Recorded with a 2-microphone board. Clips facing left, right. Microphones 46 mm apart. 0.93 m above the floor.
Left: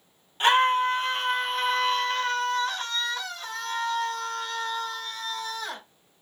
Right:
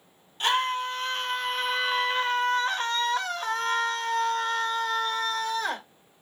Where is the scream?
30° left (ahead or behind), 1.3 m; by 5.8 s 60° right (ahead or behind), 2.5 m.